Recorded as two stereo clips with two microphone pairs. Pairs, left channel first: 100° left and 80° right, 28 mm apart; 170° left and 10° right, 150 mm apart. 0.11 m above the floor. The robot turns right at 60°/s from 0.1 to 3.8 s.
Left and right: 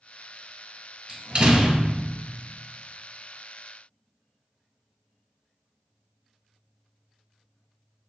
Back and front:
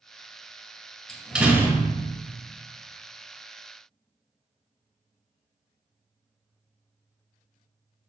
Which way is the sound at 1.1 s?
105° right.